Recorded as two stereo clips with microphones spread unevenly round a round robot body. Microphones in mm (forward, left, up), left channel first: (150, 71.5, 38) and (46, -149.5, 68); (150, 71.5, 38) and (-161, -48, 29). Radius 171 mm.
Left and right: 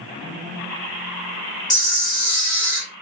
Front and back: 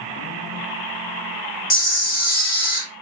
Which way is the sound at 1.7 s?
70° left.